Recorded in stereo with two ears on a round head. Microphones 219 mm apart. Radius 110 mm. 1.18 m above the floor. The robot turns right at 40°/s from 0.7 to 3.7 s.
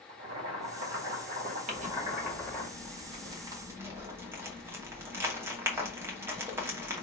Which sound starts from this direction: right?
Crumpling, at 1.7 s.